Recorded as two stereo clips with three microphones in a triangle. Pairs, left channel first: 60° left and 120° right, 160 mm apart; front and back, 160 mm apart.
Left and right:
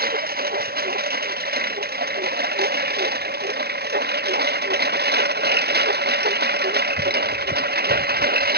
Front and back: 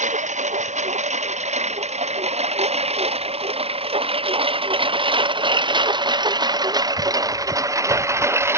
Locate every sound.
0.0 s a lawn mower: 140° right; by 8.6 s 105° right